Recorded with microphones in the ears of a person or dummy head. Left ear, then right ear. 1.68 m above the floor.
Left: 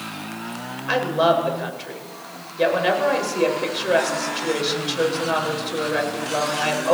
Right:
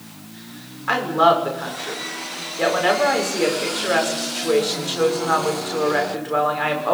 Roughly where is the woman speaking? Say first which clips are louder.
Right 3 dB; right.